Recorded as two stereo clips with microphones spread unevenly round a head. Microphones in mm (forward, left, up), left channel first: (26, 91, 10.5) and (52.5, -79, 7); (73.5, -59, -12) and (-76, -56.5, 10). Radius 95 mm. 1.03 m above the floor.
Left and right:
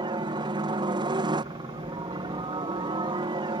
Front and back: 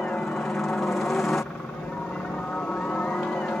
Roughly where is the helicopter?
Right.